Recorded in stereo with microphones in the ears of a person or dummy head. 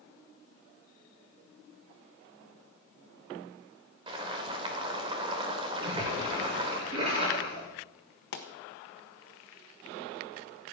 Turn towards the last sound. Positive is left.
turn(degrees=45)  # may be behind; listen again after turning